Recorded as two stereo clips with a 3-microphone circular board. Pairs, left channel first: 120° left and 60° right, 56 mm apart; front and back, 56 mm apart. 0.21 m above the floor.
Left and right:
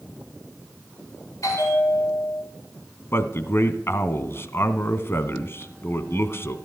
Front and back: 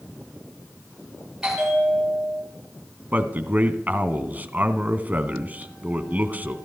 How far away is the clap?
I don't hear a clap.